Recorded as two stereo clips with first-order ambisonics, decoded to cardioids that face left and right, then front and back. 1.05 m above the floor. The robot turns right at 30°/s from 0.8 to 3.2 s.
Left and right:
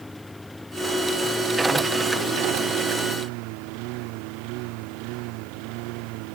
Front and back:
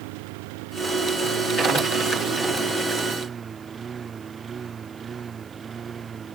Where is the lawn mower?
175° left; by 6.3 s 110° right.